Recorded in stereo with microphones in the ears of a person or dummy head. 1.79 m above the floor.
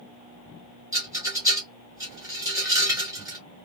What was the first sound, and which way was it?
A rattle, 15° right (ahead or behind).